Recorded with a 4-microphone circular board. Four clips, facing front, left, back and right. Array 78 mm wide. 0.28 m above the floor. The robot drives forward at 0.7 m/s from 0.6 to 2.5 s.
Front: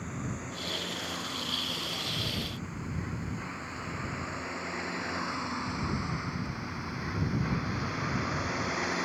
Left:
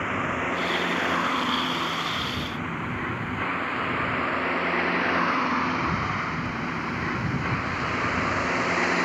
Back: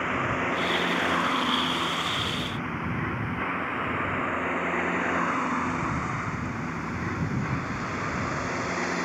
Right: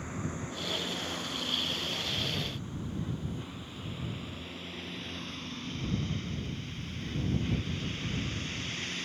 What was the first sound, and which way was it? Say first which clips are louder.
A vehicle: left 12 dB, back 12 dB; 135° left.